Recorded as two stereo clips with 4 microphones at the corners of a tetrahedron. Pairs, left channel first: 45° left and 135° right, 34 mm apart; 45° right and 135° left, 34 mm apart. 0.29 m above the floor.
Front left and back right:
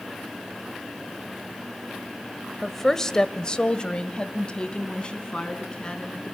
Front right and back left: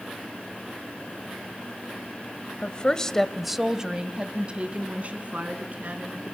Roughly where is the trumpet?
I don't hear a trumpet.